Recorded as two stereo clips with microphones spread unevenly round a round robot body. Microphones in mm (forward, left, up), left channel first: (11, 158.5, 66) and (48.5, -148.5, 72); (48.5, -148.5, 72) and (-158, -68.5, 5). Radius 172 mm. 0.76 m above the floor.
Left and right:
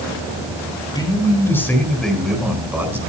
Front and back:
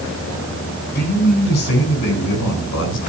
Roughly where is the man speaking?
Ahead.